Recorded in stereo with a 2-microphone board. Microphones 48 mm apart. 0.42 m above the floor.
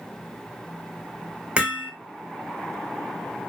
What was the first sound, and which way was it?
Hammering, 25° right (ahead or behind).